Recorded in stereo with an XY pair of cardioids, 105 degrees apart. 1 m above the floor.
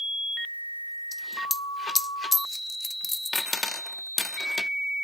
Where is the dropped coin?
25° left, 0.8 m.